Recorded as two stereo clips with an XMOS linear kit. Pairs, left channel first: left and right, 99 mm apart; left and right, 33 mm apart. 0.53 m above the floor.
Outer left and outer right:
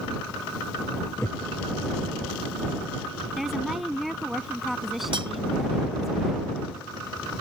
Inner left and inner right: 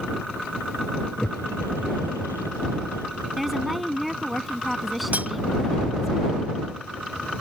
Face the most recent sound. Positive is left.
turn(degrees=-60)  # may be behind; listen again after turning